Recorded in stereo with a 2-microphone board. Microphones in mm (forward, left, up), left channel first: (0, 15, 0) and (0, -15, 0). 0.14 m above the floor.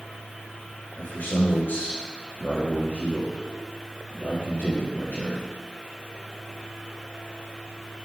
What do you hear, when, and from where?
1.0 s a man speaking: 70° left (ahead or behind), 5 m